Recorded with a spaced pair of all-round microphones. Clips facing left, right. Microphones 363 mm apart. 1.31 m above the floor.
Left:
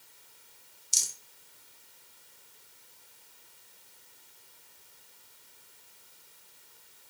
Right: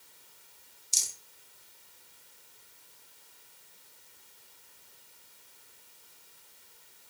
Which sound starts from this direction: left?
A rattle, at 0.9 s.